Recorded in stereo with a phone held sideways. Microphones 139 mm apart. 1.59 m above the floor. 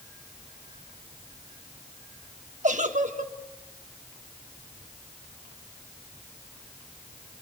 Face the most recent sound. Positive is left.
turn(degrees=-65)  # may be behind; listen again after turning